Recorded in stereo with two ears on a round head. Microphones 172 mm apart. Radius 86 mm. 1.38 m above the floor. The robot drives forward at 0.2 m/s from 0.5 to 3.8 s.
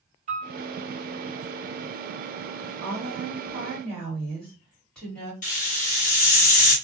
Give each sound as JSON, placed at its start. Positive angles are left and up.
{"t": 0.3, "sound": "a piano", "side_deg": -40, "distance_m": 1.2}
{"t": 2.8, "sound": "a woman speaking", "side_deg": 5, "distance_m": 1.3}
{"t": 5.4, "sound": "a hiss", "side_deg": 40, "distance_m": 1.0}